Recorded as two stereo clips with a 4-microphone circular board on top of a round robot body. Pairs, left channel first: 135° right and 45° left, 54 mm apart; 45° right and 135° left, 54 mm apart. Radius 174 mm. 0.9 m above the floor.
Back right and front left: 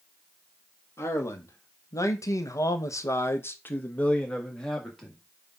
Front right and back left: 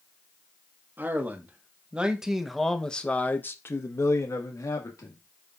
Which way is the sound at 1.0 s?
170° right.